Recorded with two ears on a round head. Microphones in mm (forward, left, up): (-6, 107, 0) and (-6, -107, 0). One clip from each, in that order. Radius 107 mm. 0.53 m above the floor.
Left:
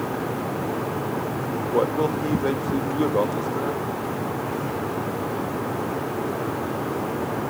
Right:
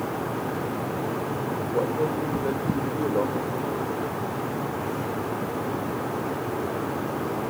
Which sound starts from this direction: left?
A man speaking, at 1.7 s.